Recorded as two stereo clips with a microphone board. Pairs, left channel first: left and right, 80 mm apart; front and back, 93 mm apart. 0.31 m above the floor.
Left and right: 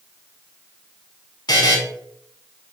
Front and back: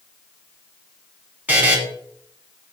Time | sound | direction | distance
1.5 | a buzzer | 110° left | 0.7 m